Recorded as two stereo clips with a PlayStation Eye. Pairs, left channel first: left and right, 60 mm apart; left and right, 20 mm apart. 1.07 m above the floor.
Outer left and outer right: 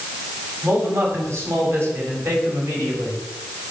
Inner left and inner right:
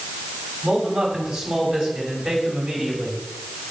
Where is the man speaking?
50° right (ahead or behind), 7 m; by 3.2 s 55° right (ahead or behind), 5.5 m.